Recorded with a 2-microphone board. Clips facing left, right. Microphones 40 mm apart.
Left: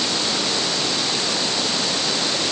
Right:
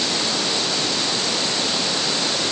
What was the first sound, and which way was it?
Only background noise.